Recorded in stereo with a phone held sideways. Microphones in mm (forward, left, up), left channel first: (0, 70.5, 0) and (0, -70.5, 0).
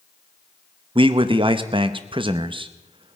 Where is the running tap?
No running tap in this recording.